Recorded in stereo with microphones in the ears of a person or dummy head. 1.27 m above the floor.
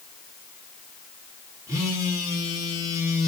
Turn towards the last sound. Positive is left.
turn(degrees=-15)  # may be behind; listen again after turning